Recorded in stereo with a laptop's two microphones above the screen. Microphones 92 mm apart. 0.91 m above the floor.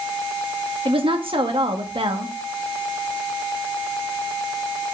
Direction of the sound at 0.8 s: 65° right (ahead or behind).